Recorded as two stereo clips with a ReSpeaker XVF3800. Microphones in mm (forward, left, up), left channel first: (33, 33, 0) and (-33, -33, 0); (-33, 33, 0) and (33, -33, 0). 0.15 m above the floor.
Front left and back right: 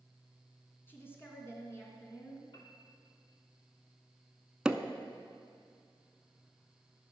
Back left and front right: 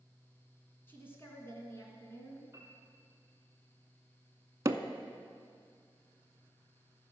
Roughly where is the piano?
Ahead.